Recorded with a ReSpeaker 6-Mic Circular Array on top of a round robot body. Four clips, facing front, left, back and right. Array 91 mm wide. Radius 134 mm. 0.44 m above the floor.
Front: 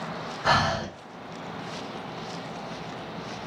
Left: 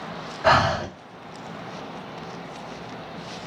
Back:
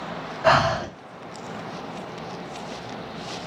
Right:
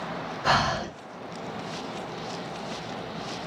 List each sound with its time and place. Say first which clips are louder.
0.4 s breathing: left 5 dB, back 5 dB; 130° left, 1.2 m